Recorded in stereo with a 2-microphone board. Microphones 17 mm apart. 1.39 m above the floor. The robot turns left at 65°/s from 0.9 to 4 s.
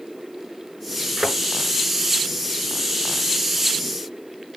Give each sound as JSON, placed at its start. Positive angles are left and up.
{"t": 1.2, "sound": "a thud", "side_deg": -35, "distance_m": 6.0}